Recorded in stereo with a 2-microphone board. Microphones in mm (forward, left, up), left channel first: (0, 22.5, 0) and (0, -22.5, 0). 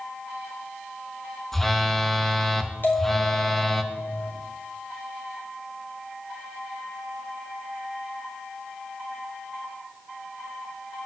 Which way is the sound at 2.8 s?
55° left (ahead or behind).